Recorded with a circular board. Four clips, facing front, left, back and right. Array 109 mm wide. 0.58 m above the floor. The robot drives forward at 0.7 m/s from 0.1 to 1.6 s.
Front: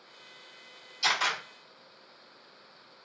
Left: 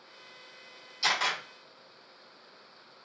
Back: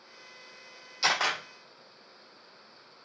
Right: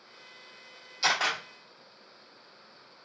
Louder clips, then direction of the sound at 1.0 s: Right 2 dB, back 1 dB; 160° right.